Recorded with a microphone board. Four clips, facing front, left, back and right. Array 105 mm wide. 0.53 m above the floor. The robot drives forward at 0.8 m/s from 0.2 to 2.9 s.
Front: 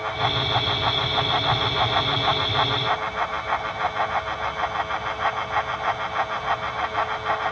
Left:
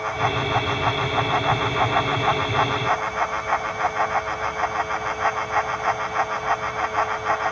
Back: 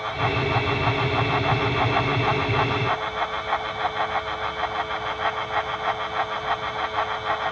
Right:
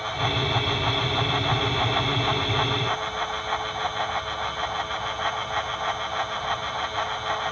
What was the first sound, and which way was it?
Only background noise.